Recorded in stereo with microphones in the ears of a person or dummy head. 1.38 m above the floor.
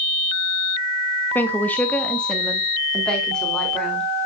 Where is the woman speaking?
10° left (ahead or behind), 1.1 m; by 4.1 s 5° left (ahead or behind), 4 m.